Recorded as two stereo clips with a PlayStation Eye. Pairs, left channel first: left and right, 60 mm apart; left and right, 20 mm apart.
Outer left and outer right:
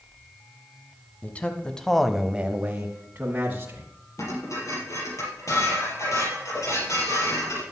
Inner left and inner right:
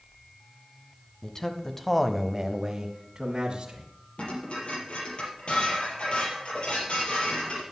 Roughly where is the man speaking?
Left.